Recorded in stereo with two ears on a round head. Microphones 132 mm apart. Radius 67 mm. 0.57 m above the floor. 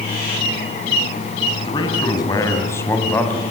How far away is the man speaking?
About 4.5 m.